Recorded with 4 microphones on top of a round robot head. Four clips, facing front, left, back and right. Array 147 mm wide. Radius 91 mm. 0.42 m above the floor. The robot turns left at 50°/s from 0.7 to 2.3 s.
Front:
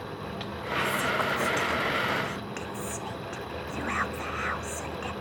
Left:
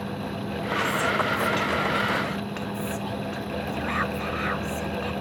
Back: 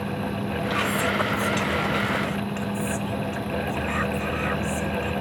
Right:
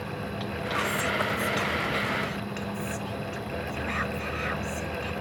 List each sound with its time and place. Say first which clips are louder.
0.7 s whispering: left 4 dB, back 2 dB; 150° left, 1.3 m; by 5.1 s 70° left, 1.3 m